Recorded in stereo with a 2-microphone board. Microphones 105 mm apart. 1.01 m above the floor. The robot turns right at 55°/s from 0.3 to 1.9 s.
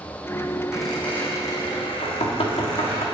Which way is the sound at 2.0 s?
65° left (ahead or behind).